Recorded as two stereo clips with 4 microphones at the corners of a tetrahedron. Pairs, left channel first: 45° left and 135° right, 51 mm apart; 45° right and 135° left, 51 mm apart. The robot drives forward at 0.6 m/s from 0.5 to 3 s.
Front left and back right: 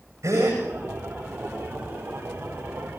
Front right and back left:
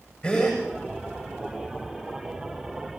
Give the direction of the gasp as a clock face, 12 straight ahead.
4 o'clock.